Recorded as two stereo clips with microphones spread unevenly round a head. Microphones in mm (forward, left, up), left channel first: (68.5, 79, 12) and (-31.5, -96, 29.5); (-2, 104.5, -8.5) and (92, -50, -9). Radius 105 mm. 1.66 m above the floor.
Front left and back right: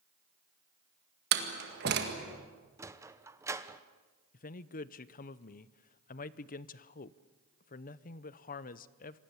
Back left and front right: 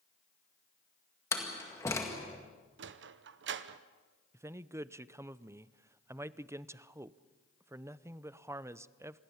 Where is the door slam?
160° right, 1.9 m.